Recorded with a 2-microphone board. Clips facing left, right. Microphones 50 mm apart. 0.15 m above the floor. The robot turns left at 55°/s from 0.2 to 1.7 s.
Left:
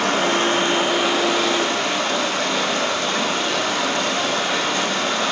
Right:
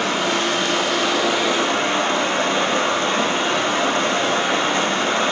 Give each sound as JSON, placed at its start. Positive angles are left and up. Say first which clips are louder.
{"t": 0.0, "sound": "running water", "louder": "left 1 dB", "azimuth_deg": 55, "distance_m": 4.0}